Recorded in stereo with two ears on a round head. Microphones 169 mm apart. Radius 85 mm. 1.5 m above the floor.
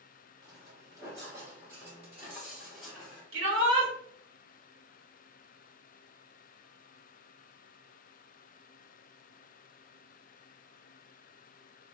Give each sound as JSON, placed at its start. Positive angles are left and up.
{"t": 0.4, "sound": "footsteps", "side_deg": -20, "distance_m": 1.9}
{"t": 3.3, "sound": "a shout", "side_deg": -85, "distance_m": 1.1}